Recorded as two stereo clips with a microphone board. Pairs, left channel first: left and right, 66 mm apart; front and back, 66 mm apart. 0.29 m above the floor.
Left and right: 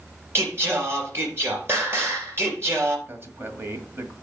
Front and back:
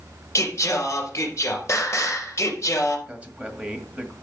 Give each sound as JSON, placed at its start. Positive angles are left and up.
{"t": 0.3, "sound": "singing", "azimuth_deg": -40, "distance_m": 3.5}
{"t": 3.1, "sound": "a man speaking", "azimuth_deg": -120, "distance_m": 1.8}